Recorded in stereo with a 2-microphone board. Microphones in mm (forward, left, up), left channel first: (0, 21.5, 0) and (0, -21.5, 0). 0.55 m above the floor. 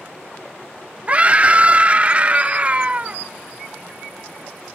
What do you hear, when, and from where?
1.1 s a scream: 30° right (ahead or behind), 0.9 m